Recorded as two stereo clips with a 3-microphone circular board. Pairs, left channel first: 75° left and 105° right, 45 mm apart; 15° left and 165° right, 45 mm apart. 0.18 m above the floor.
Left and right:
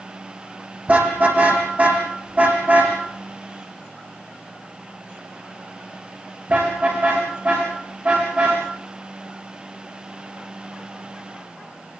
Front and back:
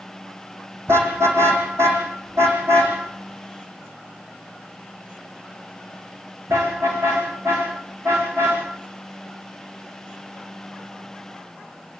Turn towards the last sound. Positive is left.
turn(degrees=-160)